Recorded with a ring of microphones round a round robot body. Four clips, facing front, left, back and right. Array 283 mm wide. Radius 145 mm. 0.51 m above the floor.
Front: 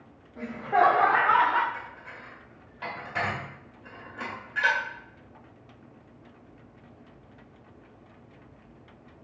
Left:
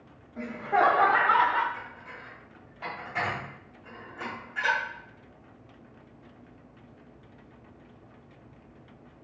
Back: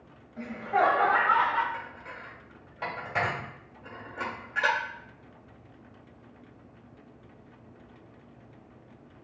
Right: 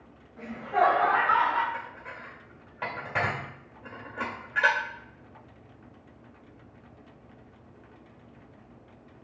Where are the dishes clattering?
105° right, 1.4 m.